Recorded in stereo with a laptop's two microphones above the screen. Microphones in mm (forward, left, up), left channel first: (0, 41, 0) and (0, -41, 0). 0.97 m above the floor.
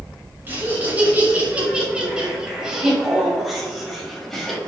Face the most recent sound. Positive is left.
turn(degrees=5)  # may be behind; listen again after turning